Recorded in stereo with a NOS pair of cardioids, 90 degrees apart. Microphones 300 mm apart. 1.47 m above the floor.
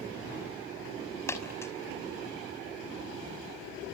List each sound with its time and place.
1.3 s a dropped coin: 10° left, 5.5 m